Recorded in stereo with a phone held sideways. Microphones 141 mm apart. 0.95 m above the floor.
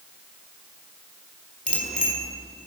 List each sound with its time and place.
1.7 s a bicycle bell: 85° left, 2.5 m